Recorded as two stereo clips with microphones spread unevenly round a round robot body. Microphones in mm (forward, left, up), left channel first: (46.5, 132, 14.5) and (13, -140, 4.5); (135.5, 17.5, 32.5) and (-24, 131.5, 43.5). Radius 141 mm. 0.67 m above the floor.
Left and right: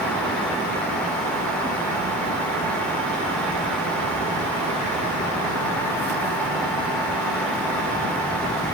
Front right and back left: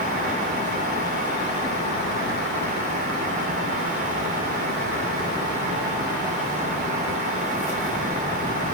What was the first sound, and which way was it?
Only background noise.